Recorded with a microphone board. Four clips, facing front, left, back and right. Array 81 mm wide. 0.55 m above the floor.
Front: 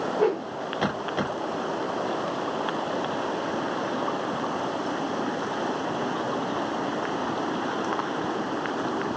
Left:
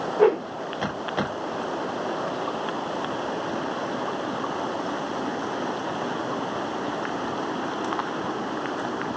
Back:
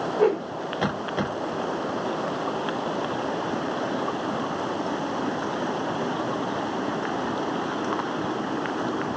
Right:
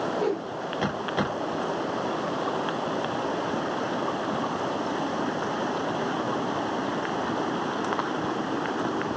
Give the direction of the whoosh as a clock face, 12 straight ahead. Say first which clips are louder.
Left 8 dB, back 3 dB; 9 o'clock.